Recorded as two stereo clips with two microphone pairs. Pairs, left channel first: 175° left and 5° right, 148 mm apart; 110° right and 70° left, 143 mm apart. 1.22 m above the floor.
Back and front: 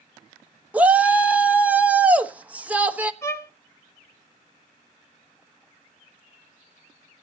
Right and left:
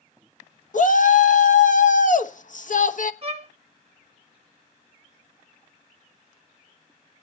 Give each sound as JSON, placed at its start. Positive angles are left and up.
{"t": 0.7, "sound": "a shout", "azimuth_deg": -85, "distance_m": 1.3}
{"t": 3.2, "sound": "a violin", "azimuth_deg": 105, "distance_m": 0.9}